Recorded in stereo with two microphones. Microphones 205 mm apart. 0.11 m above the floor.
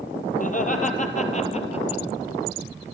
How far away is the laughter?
About 2.5 m.